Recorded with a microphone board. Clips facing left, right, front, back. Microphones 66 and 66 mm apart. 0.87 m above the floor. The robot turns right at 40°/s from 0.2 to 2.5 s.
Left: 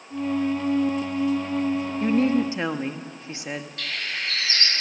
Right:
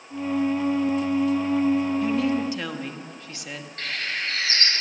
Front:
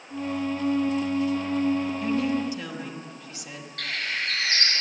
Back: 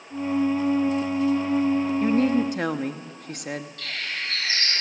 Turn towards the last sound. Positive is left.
turn(degrees=-35)